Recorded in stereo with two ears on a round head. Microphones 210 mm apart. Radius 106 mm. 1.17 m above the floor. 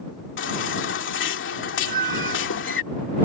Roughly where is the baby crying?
Left.